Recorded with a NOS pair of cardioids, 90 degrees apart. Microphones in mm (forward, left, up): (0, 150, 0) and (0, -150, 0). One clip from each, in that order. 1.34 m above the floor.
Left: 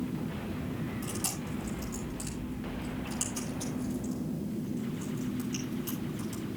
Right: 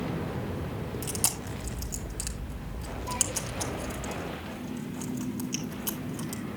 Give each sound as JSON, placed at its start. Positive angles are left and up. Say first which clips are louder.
{"t": 1.0, "sound": "chewing", "louder": "right 7 dB", "azimuth_deg": -60, "distance_m": 2.5}